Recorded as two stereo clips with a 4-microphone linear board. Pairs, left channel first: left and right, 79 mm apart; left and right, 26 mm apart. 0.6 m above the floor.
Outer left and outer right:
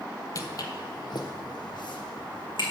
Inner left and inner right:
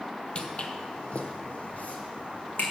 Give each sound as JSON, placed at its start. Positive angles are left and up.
{"t": 0.3, "sound": "footsteps", "side_deg": 45, "distance_m": 0.8}